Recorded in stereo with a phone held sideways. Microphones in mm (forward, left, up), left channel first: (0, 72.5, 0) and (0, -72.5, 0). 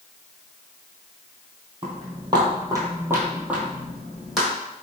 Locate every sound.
1.8 s footsteps: 30° right (ahead or behind), 1.3 m; by 4.5 s centre (ahead or behind), 1.7 m